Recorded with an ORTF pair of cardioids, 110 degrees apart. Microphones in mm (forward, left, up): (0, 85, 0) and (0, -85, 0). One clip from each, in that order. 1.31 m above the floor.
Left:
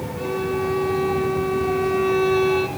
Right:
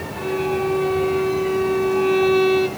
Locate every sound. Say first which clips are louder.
0.2 s a violin: right 2 dB; straight ahead, 1.0 m